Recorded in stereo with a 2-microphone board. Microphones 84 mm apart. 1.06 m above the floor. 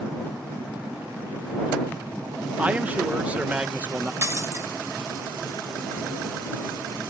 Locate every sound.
2.6 s a man speaking: 20° right (ahead or behind)
4.2 s breaking glass: 35° right (ahead or behind)